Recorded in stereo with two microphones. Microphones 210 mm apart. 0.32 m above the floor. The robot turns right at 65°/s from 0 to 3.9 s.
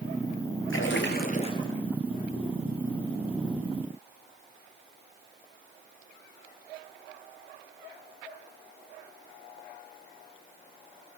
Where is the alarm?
No alarm in this recording.